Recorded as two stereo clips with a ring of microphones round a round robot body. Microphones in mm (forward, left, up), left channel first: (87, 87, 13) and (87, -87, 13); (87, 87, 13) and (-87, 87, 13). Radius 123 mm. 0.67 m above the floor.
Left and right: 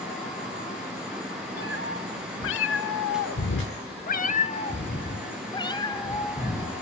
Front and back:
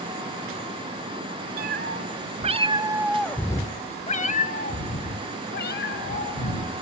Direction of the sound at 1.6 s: 145° left.